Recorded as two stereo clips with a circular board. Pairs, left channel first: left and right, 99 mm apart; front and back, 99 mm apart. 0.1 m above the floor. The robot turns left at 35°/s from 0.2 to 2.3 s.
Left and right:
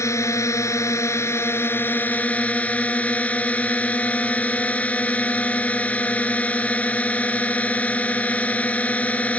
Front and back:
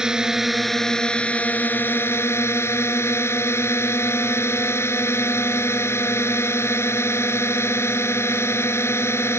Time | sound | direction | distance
0.0 | a drone | 105° left | ?